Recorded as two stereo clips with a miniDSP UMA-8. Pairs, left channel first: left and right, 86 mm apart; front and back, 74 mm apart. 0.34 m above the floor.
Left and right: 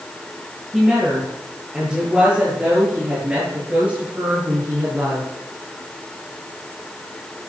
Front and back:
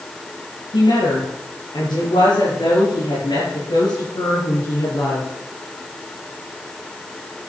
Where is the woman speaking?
5° right, 7.5 m; by 5.3 s 25° right, 5.5 m.